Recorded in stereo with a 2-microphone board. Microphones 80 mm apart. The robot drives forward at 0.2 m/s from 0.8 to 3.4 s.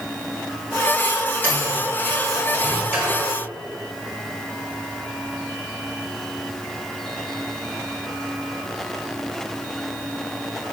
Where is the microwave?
25° right (ahead or behind), 2.5 m; by 3.2 s 20° right (ahead or behind), 3 m.